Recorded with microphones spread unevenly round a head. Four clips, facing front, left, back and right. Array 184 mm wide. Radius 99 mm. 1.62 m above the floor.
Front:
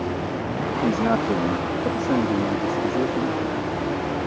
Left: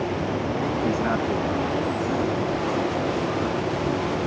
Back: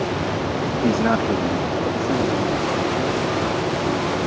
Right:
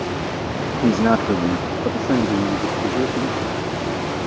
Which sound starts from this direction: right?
A man speaking, at 0.8 s.